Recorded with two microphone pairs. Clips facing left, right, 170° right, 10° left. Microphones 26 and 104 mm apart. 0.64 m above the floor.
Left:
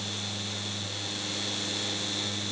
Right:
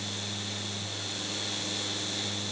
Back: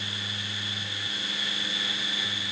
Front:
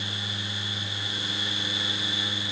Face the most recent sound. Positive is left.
No sound to turn to.